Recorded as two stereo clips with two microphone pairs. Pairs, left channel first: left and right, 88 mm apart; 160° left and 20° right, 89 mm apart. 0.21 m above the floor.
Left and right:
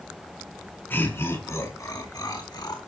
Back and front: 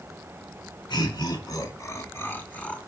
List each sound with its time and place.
0.9 s laughter: 150° left, 3 m; by 2.8 s 85° left, 2.5 m